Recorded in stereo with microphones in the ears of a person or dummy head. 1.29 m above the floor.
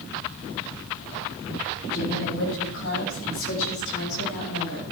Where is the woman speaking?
75° left (ahead or behind), 10 m; by 4.8 s 85° left, 8.5 m.